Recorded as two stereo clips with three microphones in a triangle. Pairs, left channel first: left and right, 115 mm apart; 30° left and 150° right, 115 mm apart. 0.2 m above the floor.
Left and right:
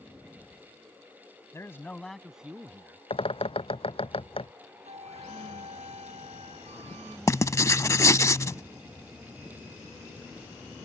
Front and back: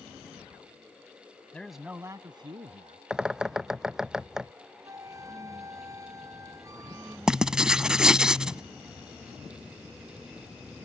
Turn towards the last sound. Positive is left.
turn(degrees=130)